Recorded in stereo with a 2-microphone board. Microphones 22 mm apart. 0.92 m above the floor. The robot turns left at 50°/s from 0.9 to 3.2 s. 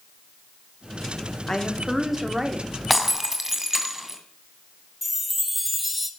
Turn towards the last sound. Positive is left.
turn(degrees=-5)  # may be behind; listen again after turning